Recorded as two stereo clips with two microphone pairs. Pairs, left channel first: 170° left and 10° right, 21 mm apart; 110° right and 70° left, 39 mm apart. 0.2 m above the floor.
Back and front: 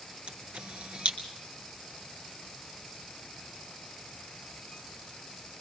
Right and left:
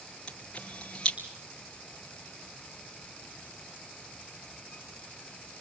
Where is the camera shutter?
40° right, 3.5 m.